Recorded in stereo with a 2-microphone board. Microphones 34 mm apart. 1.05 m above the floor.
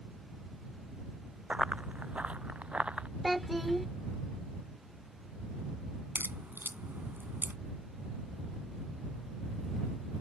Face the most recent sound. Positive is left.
turn(degrees=-80)